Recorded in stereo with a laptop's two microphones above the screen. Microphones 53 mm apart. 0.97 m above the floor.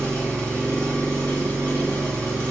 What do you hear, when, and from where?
0.0 s an engine running: 45° left (ahead or behind), 1.7 m